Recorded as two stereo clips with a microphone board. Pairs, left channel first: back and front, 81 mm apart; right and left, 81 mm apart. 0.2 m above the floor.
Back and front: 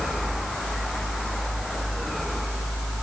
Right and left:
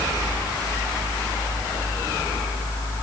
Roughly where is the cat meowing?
No cat meowing in this recording.